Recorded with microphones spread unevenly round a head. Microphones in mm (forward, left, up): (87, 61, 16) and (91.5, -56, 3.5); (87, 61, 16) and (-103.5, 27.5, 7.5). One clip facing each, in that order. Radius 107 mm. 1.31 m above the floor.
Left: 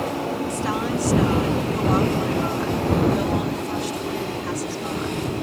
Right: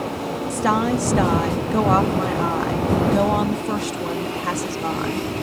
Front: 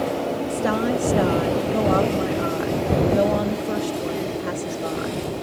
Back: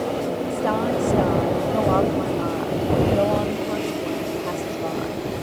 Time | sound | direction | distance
0.5 | a woman speaking | 65° right | ?